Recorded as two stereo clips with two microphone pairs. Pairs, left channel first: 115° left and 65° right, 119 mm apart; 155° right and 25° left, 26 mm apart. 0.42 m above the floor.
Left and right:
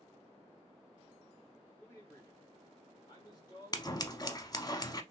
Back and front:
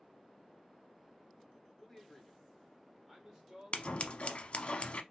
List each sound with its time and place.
1.8 s a man speaking: 155° left, 1.5 m; by 4.7 s 80° left, 2 m
3.7 s scissors: 170° left, 0.6 m